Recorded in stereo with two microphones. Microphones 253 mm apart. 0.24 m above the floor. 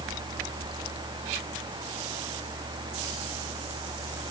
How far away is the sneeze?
I don't hear a sneeze.